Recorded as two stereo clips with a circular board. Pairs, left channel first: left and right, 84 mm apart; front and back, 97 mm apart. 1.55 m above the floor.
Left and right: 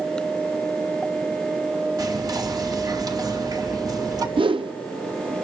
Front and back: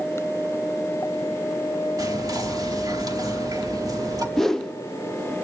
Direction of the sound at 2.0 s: 130° right.